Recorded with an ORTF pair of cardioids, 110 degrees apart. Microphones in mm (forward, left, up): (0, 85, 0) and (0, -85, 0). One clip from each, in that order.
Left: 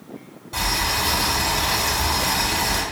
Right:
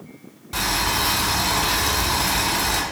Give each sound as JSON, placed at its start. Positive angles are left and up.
{"t": 0.5, "sound": "boiling", "azimuth_deg": -20, "distance_m": 3.0}